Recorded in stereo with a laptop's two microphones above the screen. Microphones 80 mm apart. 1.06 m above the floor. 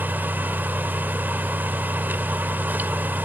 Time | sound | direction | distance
0.0 | a fan | 25° right (ahead or behind) | 0.8 m